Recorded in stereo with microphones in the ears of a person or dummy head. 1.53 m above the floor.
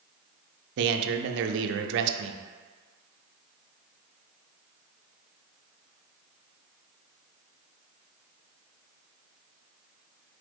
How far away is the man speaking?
About 0.5 m.